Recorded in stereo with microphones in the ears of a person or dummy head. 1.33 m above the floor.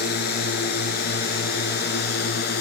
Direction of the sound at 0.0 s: 55° left (ahead or behind).